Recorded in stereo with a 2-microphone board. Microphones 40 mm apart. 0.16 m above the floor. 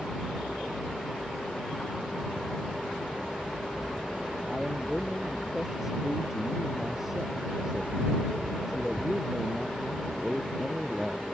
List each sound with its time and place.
4.5 s a man speaking: 10° right (ahead or behind)